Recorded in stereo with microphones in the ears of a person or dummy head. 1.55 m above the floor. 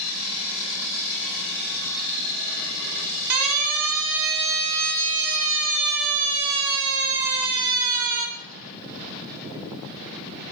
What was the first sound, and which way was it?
A siren, 85° right.